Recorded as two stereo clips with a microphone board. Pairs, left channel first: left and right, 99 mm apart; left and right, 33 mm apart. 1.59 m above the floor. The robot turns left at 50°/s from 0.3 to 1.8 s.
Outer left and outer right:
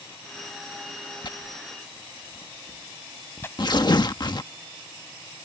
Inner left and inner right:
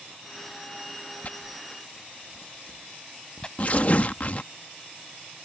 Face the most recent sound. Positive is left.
turn(degrees=25)  # may be behind; listen again after turning